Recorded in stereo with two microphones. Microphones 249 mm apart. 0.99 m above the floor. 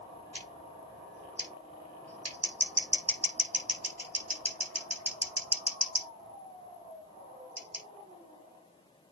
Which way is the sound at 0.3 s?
80° right.